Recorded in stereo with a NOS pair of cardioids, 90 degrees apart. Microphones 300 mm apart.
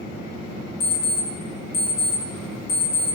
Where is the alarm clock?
55° left, 1.0 m.